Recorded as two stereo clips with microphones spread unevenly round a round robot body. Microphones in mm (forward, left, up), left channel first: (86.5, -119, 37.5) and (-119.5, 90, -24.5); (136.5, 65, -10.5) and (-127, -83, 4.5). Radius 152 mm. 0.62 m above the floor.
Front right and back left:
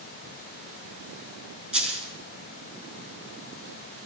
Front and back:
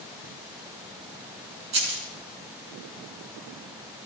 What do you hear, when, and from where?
1.7 s a dropped coin: 135° right, 4.5 m